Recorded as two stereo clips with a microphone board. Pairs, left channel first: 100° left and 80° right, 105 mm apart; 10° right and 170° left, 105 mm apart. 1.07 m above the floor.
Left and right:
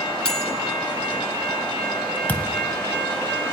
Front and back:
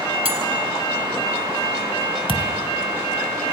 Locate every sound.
0.2 s cutlery clinking: 175° right, 5 m
2.3 s a thud: 170° left, 1.5 m